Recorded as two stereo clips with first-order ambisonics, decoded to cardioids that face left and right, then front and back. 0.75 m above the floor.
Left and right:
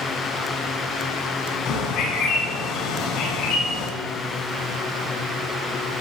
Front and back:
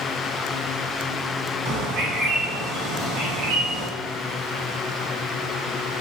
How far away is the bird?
About 6.5 m.